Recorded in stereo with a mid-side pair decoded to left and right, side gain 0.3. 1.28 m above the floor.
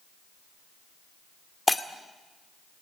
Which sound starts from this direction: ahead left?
Breaking glass, at 1.7 s.